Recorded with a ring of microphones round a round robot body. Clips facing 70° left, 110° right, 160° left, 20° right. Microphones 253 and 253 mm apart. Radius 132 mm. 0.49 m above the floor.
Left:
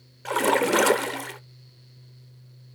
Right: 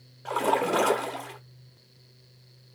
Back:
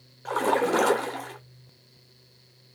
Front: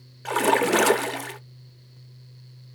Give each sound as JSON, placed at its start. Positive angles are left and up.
{"t": 0.2, "sound": "a splash", "azimuth_deg": 20, "distance_m": 0.5}